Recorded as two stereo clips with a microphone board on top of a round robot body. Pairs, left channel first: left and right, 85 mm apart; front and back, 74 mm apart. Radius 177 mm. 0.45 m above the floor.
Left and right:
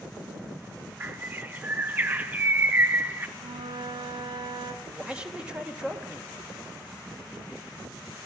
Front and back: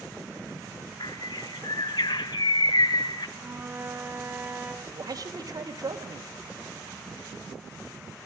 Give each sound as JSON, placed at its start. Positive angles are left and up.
{"t": 1.0, "sound": "a bird", "azimuth_deg": -20, "distance_m": 0.6}
{"t": 3.4, "sound": "a flute", "azimuth_deg": -120, "distance_m": 2.0}
{"t": 4.8, "sound": "a man speaking", "azimuth_deg": -165, "distance_m": 3.0}